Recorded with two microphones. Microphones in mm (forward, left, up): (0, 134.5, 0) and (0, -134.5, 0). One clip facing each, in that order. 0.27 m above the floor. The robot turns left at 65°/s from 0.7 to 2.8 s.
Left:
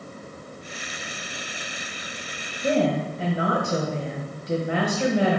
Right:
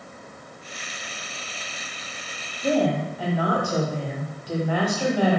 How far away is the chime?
I don't hear a chime.